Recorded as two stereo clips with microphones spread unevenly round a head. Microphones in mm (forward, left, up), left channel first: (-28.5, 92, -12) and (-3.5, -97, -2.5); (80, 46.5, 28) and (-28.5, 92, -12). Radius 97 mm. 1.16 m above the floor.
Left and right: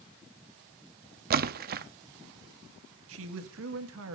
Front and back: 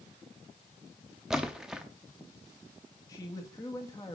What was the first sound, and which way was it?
A splash, 100° right.